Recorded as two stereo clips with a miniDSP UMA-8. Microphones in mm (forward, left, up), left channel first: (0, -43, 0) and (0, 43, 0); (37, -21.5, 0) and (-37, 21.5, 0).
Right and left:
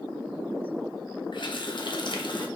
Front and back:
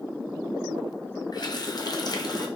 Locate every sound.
1.3 s a running tap: 65° right, 0.6 m